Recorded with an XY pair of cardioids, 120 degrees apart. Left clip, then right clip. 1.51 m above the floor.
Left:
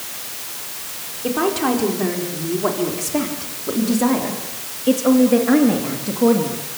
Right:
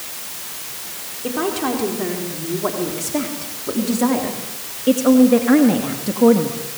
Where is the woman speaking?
10° left, 4.5 m; by 6.6 s 25° right, 2.5 m.